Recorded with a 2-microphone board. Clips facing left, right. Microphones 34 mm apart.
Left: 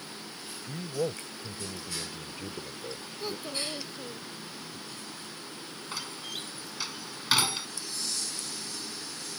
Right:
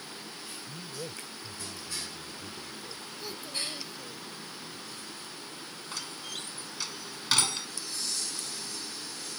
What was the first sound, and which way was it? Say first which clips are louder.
A man speaking: left 11 dB; 70° left (ahead or behind).